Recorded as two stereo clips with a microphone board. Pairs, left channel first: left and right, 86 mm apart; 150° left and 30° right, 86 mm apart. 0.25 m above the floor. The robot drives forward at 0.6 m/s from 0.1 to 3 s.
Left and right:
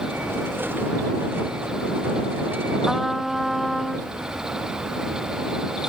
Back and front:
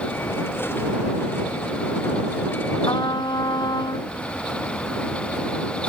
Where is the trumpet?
Straight behind.